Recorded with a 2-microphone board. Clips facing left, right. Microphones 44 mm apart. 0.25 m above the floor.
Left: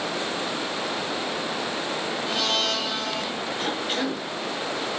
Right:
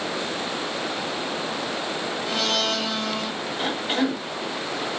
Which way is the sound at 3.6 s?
25° right (ahead or behind).